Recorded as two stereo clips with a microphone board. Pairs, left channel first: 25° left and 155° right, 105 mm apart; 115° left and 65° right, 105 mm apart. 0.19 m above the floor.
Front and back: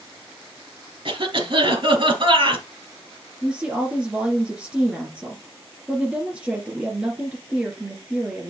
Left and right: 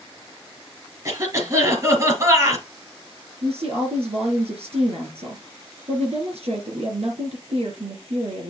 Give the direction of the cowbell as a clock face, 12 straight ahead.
No cowbell in this recording.